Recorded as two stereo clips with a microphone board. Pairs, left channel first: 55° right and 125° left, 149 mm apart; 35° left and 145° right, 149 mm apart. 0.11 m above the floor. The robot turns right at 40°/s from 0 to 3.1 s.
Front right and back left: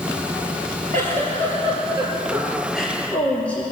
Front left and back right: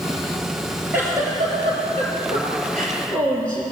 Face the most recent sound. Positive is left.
turn(degrees=-135)